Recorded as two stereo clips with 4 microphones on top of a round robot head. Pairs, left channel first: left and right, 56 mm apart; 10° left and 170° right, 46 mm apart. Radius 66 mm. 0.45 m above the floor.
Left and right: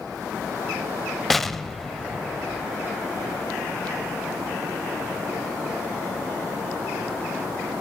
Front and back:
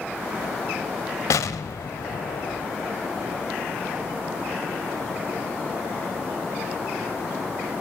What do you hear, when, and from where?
1.3 s an explosion: 5° left, 0.7 m